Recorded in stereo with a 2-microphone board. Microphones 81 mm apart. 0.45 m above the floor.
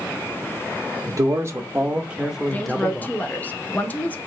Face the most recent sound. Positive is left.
turn(degrees=20)  # may be behind; listen again after turning